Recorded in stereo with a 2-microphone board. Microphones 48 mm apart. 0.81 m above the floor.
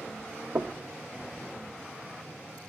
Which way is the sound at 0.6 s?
75° right (ahead or behind).